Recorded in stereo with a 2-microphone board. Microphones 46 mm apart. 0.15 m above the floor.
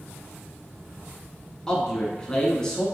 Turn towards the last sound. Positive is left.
turn(degrees=15)  # may be behind; listen again after turning